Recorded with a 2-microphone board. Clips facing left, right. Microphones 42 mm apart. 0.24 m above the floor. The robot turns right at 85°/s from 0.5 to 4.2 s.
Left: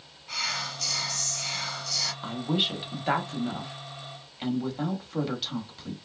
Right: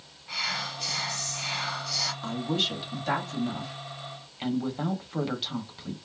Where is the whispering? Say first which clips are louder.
Even; 10° right (ahead or behind), 0.9 m; by 2.1 s 5° right (ahead or behind), 0.9 m.